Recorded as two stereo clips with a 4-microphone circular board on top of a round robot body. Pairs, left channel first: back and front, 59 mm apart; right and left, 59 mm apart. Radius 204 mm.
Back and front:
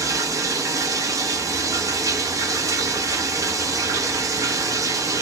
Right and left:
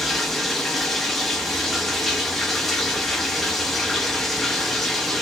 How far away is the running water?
About 1.1 m.